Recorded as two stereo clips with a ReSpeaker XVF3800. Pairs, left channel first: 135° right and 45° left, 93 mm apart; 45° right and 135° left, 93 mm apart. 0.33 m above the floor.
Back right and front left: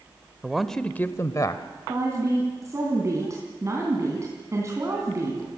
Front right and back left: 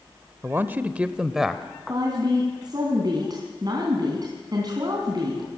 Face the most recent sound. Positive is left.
turn(degrees=100)